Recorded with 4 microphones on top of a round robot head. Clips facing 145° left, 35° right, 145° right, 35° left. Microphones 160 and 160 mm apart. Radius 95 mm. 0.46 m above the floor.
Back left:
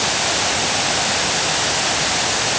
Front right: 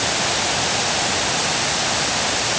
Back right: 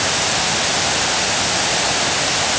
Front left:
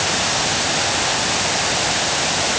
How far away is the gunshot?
No gunshot in this recording.